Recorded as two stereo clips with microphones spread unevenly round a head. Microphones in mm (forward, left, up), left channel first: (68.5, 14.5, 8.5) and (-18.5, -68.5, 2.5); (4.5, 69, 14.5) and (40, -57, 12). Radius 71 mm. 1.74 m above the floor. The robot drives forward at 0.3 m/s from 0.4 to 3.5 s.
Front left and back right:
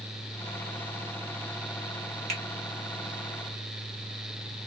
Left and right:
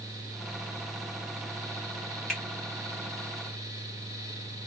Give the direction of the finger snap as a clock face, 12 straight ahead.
6 o'clock.